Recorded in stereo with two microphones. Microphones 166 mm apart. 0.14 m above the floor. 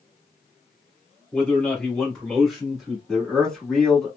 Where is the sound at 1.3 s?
10° left (ahead or behind), 1.6 m; by 3.0 s 5° right (ahead or behind), 1.7 m.